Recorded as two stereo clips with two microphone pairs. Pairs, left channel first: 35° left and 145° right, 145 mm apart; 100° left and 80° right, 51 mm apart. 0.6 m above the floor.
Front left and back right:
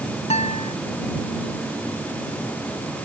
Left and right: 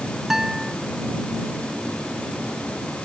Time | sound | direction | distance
0.3 | a guitar | straight ahead | ?